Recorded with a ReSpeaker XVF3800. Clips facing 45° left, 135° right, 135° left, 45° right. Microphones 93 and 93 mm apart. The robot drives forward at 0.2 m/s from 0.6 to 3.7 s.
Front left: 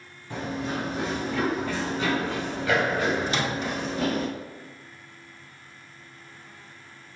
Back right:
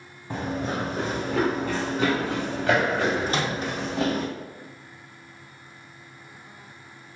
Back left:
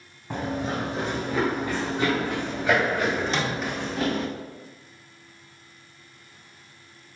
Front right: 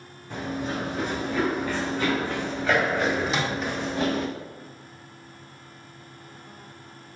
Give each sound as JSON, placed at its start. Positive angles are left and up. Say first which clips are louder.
{"t": 0.3, "sound": "running footsteps", "louder": "back right 2 dB, back left 2 dB", "azimuth_deg": -175, "distance_m": 1.4}
{"t": 3.3, "sound": "a microwave", "louder": "back right 1 dB, even", "azimuth_deg": -125, "distance_m": 0.7}